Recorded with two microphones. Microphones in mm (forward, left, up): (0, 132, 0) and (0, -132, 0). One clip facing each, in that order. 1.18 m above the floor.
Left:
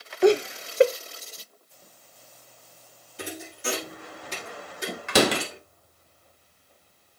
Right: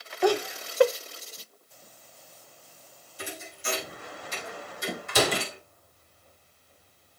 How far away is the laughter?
About 0.6 m.